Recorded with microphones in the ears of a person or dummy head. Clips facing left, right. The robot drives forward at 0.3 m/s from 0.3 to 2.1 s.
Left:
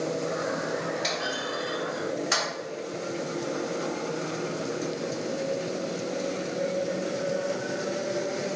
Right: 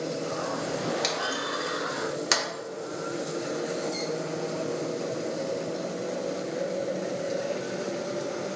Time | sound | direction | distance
1.0 | a clunk | 70° right (ahead or behind) | 0.9 m